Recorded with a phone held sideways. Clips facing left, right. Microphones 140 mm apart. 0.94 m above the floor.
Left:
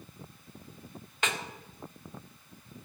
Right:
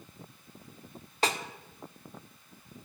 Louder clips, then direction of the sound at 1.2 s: Right 4 dB; 35° right (ahead or behind).